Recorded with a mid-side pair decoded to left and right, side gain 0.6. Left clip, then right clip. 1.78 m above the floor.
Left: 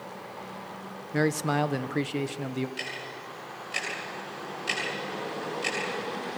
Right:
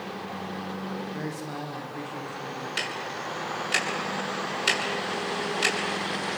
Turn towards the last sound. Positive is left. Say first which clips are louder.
# right 5 dB
turn(degrees=-60)